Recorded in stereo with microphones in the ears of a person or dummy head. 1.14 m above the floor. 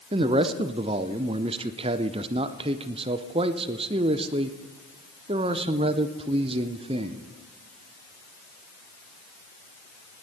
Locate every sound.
0.1 s a man speaking: 25° right (ahead or behind), 0.5 m